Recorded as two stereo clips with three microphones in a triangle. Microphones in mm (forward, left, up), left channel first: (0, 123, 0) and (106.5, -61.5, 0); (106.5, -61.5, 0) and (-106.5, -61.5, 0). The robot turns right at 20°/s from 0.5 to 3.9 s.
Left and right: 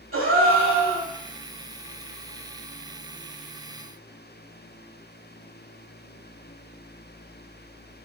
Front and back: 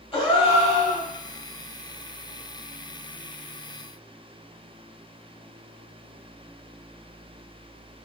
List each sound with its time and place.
0.1 s a gasp: 65° right, 1.1 m; by 1.1 s 55° right, 1.1 m